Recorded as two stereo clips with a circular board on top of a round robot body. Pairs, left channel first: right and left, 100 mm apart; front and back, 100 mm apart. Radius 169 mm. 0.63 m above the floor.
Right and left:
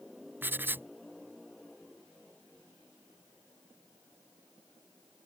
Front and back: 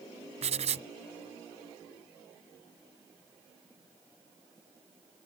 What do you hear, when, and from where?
0.4 s writing: 160° left